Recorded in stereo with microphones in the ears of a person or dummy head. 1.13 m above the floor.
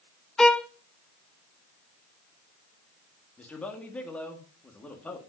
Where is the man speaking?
10° left (ahead or behind), 1.7 m.